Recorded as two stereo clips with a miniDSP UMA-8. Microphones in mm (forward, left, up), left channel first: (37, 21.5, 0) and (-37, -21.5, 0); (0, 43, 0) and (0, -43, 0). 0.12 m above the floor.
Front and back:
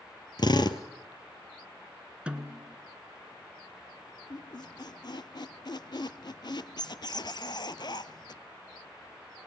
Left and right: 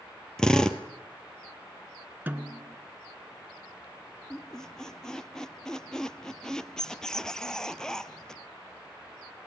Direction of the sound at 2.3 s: 95° right.